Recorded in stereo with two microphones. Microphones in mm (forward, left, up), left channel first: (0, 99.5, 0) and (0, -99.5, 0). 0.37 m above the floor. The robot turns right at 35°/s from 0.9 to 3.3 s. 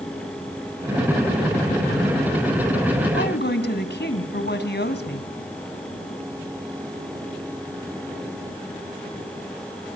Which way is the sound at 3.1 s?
60° left (ahead or behind).